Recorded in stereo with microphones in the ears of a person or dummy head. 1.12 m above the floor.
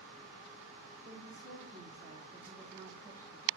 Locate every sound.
1.1 s a woman speaking: 45° right (ahead or behind), 3 m; by 3.5 s 15° right (ahead or behind), 1.9 m